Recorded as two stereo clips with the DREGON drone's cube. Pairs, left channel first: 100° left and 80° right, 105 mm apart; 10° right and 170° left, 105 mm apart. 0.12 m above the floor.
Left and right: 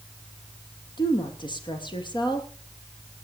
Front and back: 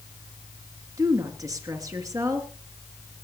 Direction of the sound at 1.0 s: 120° left.